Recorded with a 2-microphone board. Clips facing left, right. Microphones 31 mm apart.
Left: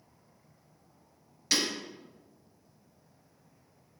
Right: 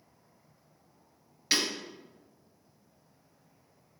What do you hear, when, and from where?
1.5 s breaking glass: 25° right (ahead or behind), 2.5 m